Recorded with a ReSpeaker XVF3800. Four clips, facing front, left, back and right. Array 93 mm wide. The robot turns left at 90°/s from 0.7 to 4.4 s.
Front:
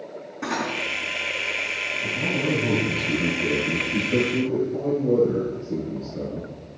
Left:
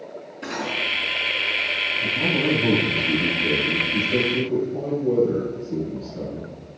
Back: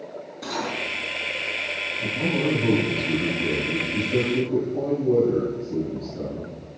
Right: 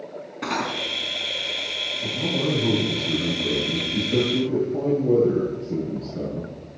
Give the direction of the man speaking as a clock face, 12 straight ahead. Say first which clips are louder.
Left 1 dB, back 2 dB; 7 o'clock.